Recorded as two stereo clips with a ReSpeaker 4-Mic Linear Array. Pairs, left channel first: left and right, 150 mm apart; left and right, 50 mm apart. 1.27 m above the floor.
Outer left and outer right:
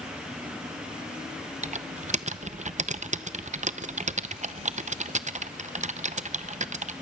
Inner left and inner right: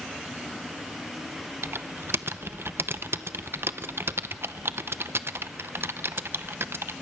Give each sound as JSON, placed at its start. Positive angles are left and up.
{"t": 1.6, "sound": "typing on a keyboard", "side_deg": -50, "distance_m": 0.6}